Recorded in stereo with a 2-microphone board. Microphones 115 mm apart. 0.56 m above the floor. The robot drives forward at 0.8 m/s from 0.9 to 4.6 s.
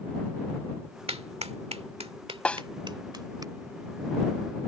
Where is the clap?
60° right (ahead or behind); by 3.5 s 35° right (ahead or behind).